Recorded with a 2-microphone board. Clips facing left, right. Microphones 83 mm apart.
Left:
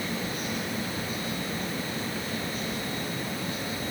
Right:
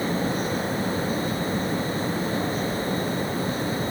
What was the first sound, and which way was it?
Only background noise.